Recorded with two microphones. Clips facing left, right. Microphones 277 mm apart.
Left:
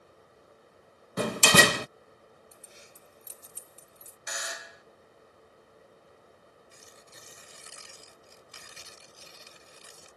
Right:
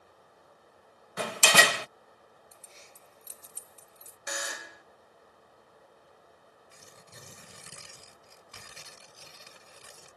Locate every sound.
1.2 s a door slam: 50° left (ahead or behind)
2.5 s keys jangling: 15° left (ahead or behind)
4.3 s a buzzer: 60° right (ahead or behind)
6.7 s tearing paper: 65° right (ahead or behind)